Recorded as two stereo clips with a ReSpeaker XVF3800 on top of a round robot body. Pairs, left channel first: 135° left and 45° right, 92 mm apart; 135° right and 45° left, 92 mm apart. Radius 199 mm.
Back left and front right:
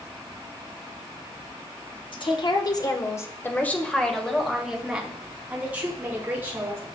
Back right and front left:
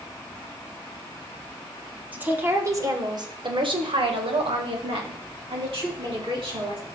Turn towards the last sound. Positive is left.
turn(degrees=20)